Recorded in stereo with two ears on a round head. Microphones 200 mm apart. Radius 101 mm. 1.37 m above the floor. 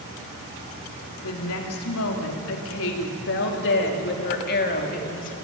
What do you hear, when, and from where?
1.2 s a woman speaking: 80° left, 3.5 m; by 5.3 s 35° left (ahead or behind), 2.5 m